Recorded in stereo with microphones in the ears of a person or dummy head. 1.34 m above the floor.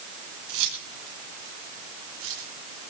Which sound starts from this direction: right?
Keys jangling, at 0.5 s.